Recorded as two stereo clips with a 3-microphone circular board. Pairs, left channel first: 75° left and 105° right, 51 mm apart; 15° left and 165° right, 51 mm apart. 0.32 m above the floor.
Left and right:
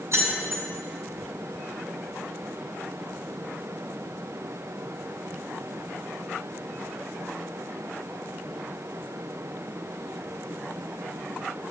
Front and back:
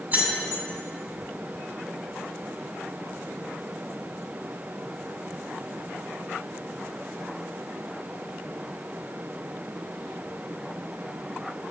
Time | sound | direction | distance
0.1 | keys jangling | 115° right | 1.8 m